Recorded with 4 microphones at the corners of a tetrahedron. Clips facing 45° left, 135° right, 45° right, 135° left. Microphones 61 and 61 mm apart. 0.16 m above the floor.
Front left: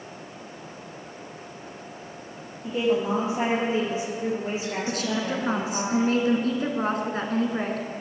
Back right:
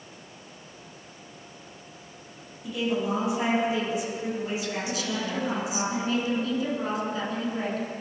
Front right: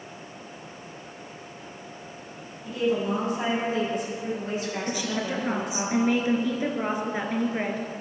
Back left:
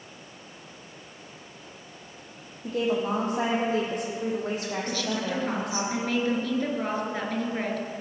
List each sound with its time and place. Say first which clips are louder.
2.6 s a woman speaking: front left 4 dB, front right 1 dB; 100° left, 5.5 m
4.9 s a woman speaking: front left 3 dB, even; 25° left, 2.5 m